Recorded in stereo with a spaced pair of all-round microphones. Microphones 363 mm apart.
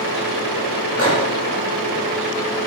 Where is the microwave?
35° left (ahead or behind), 3.5 m.